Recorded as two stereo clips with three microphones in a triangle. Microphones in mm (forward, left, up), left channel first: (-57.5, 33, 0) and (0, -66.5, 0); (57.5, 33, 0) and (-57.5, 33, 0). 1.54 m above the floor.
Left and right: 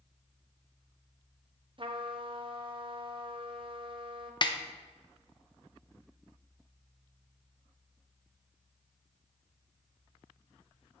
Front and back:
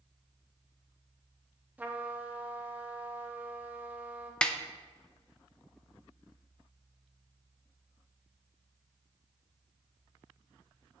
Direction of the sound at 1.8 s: 105° right.